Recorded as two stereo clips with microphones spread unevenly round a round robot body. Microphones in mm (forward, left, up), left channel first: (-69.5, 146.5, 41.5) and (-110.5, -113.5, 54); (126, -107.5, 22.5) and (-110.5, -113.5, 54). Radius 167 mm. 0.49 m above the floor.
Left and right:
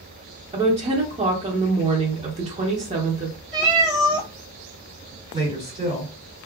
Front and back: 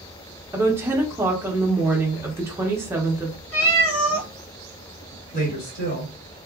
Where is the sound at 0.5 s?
95° right, 0.7 m.